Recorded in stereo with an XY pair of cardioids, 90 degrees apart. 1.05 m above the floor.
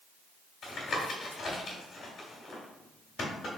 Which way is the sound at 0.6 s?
65° left.